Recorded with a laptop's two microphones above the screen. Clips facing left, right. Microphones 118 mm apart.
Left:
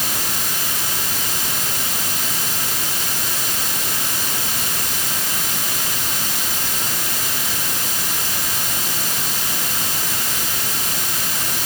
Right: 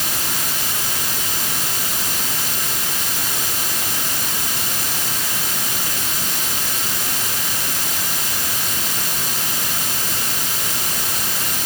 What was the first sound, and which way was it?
Only background noise.